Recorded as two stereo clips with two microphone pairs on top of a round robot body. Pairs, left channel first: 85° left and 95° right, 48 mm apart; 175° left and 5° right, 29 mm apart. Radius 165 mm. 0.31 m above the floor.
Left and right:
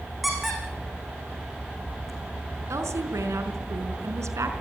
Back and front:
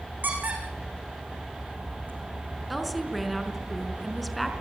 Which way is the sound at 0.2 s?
5° right.